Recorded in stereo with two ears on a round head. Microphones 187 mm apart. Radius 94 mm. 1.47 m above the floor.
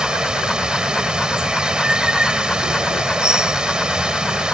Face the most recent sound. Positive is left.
turn(degrees=-5)  # may be behind; listen again after turning